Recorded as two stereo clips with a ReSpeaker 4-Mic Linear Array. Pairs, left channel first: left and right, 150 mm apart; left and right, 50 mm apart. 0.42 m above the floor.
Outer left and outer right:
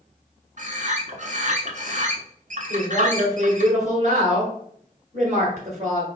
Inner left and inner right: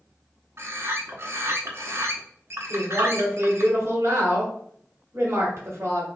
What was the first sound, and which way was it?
A bird, 55° right (ahead or behind).